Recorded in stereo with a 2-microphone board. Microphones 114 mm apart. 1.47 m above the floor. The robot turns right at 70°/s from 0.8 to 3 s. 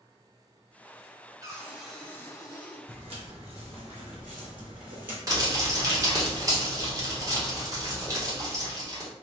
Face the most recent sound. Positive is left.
turn(degrees=-30)  # may be behind; listen again after turning